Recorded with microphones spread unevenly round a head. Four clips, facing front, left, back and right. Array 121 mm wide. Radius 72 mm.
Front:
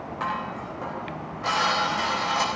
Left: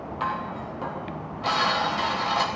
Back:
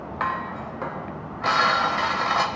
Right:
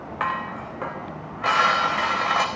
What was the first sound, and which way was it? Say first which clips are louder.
Dishes clattering: right 2 dB, back 3 dB; 110° right.